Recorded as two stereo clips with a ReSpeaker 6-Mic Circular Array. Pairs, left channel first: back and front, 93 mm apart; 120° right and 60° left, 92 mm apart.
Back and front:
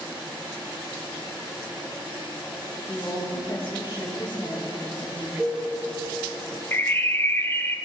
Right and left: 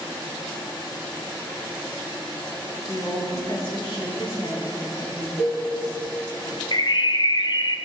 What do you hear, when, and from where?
2.9 s a woman speaking: 145° right, 3 m
5.4 s a cowbell: 60° right, 3.5 m
6.7 s a bird: 120° right, 0.6 m